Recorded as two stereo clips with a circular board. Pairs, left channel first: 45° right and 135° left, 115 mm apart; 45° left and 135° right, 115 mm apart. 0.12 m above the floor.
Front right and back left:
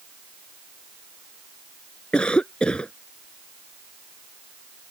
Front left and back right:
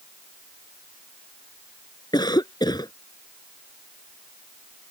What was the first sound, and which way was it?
A cough, 30° left.